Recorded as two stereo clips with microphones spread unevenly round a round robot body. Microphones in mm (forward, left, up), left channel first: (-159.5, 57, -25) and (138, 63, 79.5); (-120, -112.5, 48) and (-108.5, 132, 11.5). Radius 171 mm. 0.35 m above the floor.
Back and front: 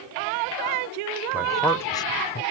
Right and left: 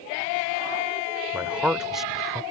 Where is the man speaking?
135° left; by 2.4 s 170° left.